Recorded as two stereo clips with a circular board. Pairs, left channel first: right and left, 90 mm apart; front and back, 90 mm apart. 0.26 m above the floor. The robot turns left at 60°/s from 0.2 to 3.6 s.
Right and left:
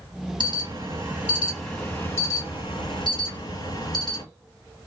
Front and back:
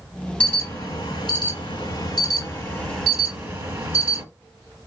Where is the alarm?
75° left, 3 m; by 4.2 s 115° right, 3 m.